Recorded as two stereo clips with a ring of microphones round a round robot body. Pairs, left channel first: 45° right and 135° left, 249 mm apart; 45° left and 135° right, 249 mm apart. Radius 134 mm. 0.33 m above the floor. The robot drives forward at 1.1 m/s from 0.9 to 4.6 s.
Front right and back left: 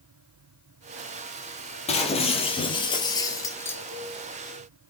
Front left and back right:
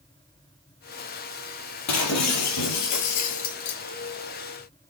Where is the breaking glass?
20° left, 4.5 m; by 3.8 s 40° left, 2.5 m.